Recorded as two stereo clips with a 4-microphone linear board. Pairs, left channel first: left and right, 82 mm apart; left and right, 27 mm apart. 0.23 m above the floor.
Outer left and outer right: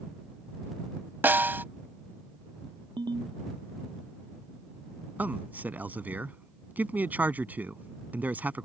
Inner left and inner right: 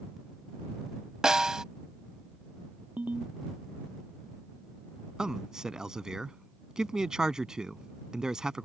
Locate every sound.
1.2 s a snare drum: 25° right (ahead or behind)
3.0 s a ringtone: 65° right (ahead or behind)
5.2 s a man speaking: 20° right (ahead or behind)